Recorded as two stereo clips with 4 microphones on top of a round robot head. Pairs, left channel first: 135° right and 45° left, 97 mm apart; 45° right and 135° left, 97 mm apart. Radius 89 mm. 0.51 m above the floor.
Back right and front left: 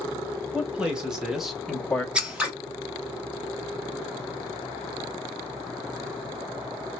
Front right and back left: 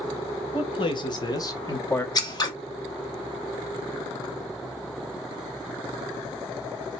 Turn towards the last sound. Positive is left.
turn(degrees=-30)